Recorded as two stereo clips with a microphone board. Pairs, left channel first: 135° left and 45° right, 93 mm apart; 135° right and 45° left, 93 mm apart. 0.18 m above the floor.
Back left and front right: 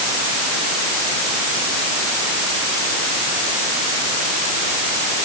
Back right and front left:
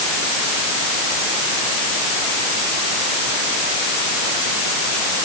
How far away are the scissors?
No scissors in this recording.